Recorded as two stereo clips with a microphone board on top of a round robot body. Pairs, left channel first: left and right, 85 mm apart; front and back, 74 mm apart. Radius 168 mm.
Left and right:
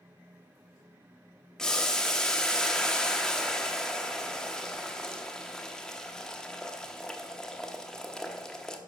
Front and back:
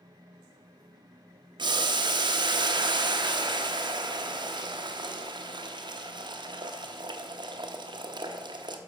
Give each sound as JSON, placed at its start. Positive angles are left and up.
{"t": 1.6, "sound": "boiling", "azimuth_deg": 175, "distance_m": 0.9}